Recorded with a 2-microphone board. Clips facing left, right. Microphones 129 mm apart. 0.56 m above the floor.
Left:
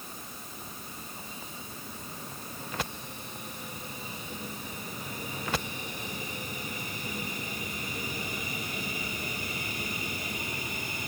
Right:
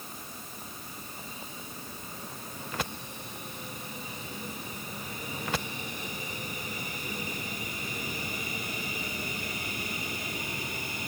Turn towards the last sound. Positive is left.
No sound to turn to.